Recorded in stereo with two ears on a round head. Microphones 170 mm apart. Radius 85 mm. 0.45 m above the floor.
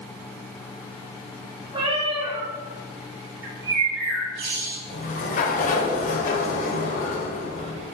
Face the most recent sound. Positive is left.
turn(degrees=40)  # may be behind; listen again after turning